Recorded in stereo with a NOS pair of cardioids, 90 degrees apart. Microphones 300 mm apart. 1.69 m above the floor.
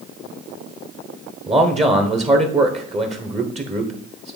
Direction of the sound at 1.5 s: 20° right.